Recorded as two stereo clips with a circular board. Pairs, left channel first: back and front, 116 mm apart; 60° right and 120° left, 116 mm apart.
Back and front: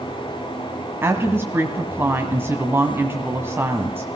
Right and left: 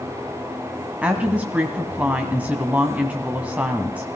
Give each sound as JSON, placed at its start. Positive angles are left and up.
{"t": 1.0, "sound": "a woman speaking", "azimuth_deg": 50, "distance_m": 1.5}